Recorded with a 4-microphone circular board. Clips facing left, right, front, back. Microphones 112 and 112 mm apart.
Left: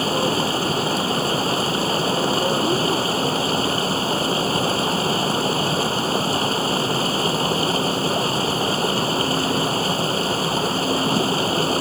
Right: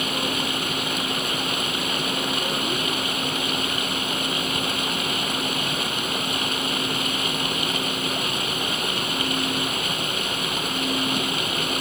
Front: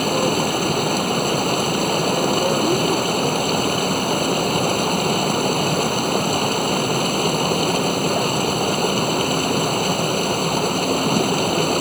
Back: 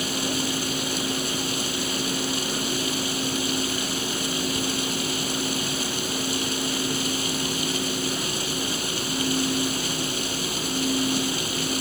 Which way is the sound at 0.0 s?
35° left.